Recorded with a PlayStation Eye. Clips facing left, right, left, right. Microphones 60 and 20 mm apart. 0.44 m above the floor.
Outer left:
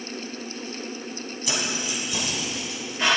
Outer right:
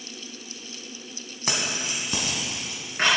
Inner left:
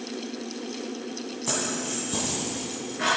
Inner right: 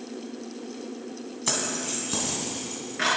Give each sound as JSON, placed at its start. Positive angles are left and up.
{"t": 1.5, "sound": "keys jangling", "side_deg": -45, "distance_m": 2.0}